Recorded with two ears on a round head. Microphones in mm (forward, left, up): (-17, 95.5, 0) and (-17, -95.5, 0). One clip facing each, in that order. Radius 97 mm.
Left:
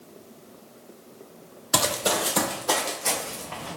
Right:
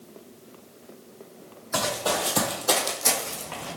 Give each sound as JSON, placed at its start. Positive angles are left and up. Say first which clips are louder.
{"t": 1.7, "sound": "running footsteps", "louder": "left 1 dB", "side_deg": 40, "distance_m": 1.0}